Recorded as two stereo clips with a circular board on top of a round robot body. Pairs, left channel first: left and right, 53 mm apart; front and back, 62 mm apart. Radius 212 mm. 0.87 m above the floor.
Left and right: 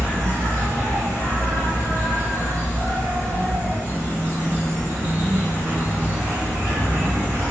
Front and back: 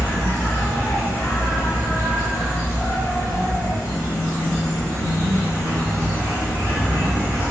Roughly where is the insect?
Ahead right.